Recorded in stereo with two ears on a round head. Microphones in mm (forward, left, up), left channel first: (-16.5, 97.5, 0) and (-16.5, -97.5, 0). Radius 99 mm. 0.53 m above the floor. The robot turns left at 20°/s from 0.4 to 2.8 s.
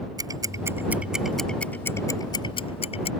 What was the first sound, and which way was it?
Ticking, 20° right (ahead or behind).